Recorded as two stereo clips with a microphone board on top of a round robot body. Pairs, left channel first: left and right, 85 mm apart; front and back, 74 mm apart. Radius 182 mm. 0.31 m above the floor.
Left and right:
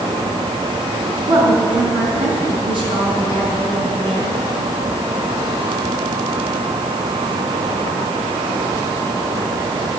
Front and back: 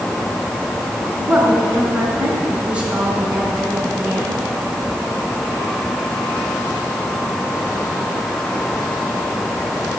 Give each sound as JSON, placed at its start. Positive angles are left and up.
{"t": 1.2, "sound": "a woman speaking", "azimuth_deg": -105, "distance_m": 5.5}